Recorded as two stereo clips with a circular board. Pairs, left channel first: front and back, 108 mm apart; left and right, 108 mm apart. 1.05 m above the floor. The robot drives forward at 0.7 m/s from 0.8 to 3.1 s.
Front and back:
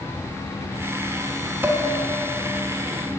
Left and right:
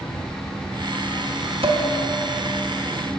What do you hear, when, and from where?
1.6 s dishes clattering: 110° right, 0.7 m; by 1.8 s 120° right, 0.7 m